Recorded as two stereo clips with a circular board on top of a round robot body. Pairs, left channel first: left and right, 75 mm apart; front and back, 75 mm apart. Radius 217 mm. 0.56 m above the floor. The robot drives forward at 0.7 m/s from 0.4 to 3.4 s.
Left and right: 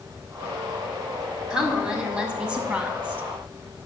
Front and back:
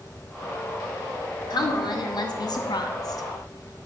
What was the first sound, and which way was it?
A woman speaking, 15° right.